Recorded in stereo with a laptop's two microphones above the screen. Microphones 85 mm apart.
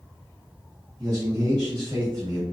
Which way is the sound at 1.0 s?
55° right (ahead or behind).